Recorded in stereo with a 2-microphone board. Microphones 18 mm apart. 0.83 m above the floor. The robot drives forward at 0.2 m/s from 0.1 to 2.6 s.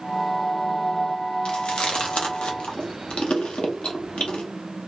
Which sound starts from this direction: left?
Chewing, at 1.4 s.